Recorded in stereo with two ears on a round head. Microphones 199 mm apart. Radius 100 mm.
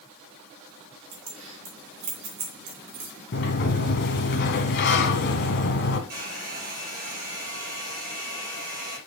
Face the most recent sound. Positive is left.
turn(degrees=-45)  # may be behind; listen again after turning